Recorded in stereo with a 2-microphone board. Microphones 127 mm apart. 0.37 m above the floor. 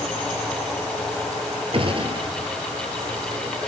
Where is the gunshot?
45° right (ahead or behind), 1.4 m.